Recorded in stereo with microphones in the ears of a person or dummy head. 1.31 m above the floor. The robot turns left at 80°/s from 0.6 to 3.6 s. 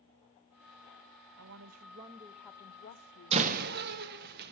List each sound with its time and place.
1.4 s a woman speaking: 100° right, 1.0 m; by 3.4 s 95° left, 1.0 m
3.3 s a door slam: 35° right (ahead or behind), 1.2 m; by 4.5 s 55° right (ahead or behind), 1.2 m